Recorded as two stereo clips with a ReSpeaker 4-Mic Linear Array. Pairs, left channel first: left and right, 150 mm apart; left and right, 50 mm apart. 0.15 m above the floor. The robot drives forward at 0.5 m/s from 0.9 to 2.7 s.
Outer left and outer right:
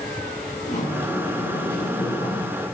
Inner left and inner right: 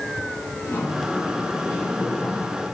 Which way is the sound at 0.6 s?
55° left (ahead or behind).